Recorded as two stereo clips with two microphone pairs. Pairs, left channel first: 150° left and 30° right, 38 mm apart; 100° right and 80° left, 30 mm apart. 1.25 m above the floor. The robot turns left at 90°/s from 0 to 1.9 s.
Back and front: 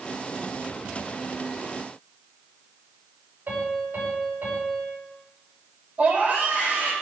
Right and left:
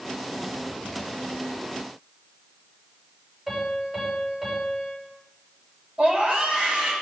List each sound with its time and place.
3.5 s a piano: 5° left, 7.5 m
6.0 s a scream: 30° left, 7.5 m